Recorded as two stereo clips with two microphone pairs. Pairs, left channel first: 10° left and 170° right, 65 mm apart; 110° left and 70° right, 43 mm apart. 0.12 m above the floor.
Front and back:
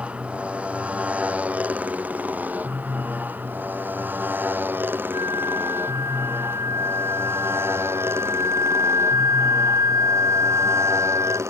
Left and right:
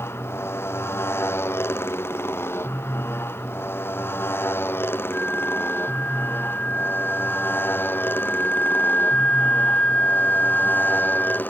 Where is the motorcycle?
120° left; by 11.5 s 150° left.